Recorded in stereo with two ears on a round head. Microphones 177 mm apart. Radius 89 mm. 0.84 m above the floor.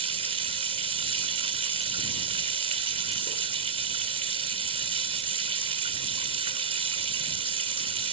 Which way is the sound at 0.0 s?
30° right (ahead or behind).